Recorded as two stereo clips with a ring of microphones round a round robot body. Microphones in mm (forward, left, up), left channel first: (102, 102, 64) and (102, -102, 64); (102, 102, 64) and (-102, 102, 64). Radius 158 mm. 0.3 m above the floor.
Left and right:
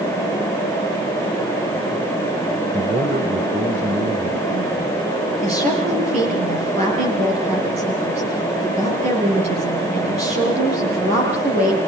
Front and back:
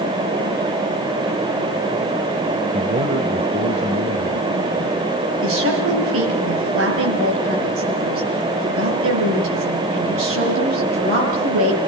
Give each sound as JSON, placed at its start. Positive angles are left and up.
{"t": 2.7, "sound": "a man speaking", "azimuth_deg": -145, "distance_m": 1.2}
{"t": 5.4, "sound": "a woman speaking", "azimuth_deg": -155, "distance_m": 7.0}